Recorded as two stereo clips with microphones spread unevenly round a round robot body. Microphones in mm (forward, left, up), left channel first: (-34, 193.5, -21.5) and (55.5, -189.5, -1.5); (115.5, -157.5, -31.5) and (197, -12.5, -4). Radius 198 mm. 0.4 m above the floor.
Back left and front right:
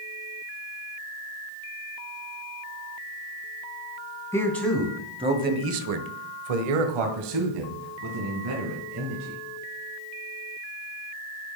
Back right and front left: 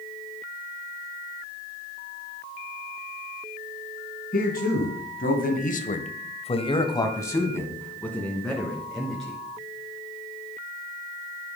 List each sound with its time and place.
4.3 s a man speaking: 175° right, 2.5 m; by 9.4 s 30° right, 5 m